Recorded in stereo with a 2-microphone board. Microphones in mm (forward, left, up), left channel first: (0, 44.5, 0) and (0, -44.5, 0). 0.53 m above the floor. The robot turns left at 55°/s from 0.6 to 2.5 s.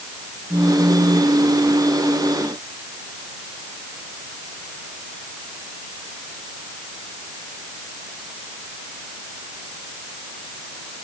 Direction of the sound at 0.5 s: 20° right.